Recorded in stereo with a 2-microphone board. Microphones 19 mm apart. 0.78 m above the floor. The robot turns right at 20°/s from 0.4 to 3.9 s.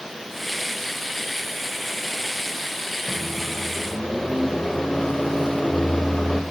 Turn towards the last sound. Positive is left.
turn(degrees=50)  # may be behind; listen again after turning